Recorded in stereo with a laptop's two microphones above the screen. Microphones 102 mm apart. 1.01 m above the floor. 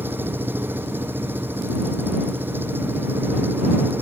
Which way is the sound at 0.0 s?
20° right (ahead or behind).